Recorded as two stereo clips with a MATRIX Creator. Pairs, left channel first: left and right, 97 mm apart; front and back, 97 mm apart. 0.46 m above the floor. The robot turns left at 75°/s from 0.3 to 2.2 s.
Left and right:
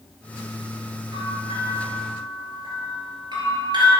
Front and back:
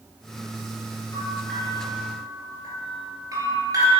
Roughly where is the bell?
Ahead right.